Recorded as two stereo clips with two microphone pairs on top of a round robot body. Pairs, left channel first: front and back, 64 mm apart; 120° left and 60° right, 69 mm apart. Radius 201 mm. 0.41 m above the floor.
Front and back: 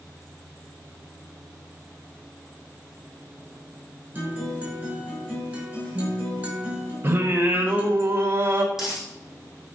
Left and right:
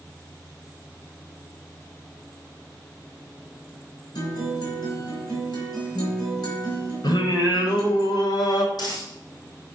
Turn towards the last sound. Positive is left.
turn(degrees=100)